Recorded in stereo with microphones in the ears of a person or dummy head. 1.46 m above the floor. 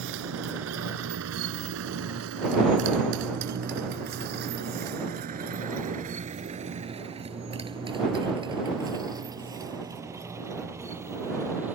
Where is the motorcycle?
75° right (ahead or behind); by 11.8 s 10° right (ahead or behind).